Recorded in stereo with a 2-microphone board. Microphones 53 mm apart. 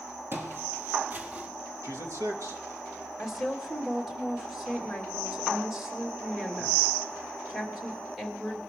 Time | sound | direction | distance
0.3 | footsteps | 45° right (ahead or behind) | 2 m
1.8 | a man speaking | 90° right | 2 m
3.2 | a woman speaking | 5° right (ahead or behind) | 2.5 m